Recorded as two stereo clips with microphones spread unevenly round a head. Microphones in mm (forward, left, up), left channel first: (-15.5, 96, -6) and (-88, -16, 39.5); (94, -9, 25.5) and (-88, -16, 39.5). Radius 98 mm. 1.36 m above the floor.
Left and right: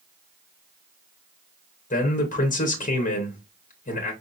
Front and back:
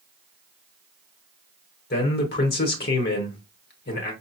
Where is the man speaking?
35° left, 1.0 m.